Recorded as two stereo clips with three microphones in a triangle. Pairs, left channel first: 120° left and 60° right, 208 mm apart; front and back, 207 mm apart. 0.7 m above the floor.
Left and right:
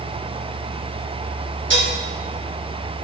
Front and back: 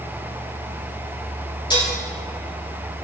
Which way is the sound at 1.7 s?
65° right.